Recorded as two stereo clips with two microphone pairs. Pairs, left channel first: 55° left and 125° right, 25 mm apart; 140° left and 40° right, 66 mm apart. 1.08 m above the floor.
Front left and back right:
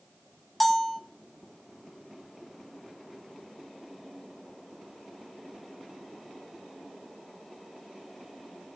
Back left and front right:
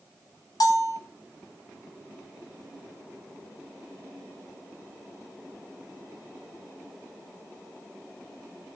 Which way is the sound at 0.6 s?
140° left.